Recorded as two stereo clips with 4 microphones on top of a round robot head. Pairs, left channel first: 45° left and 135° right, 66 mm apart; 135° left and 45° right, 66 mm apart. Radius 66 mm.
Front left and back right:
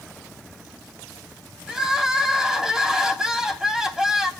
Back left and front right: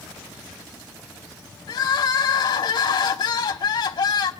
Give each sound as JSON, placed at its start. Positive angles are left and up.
{"t": 1.7, "sound": "crying", "azimuth_deg": 145, "distance_m": 3.5}